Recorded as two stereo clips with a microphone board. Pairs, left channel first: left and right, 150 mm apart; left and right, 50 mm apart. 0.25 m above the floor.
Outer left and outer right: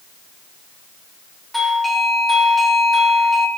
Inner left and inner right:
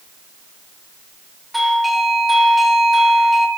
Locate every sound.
1.5 s a doorbell: centre (ahead or behind), 1.4 m